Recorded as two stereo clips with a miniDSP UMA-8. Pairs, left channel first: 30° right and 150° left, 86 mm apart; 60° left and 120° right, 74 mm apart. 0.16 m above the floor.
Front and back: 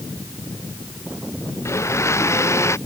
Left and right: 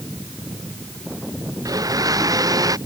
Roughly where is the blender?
Right.